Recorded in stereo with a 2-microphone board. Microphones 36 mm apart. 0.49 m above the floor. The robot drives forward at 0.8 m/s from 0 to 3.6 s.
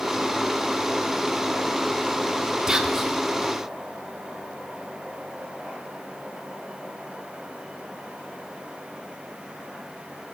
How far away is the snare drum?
No snare drum in this recording.